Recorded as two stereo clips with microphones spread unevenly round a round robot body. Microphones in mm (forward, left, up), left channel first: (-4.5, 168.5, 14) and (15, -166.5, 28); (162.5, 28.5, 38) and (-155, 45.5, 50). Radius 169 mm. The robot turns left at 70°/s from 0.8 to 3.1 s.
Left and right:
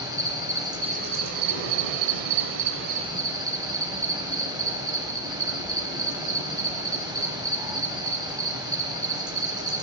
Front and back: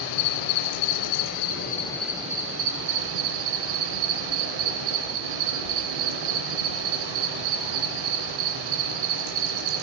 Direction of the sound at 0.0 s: 5° right.